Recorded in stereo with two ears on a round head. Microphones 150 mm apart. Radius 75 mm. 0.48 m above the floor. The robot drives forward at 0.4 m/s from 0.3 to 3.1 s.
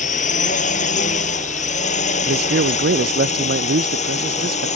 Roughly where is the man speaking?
Right.